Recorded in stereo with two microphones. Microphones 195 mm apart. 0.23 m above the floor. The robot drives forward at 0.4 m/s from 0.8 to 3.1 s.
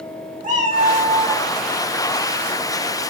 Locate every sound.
0.4 s a cat meowing: 45° right (ahead or behind), 0.9 m; by 1.5 s 40° right (ahead or behind), 0.9 m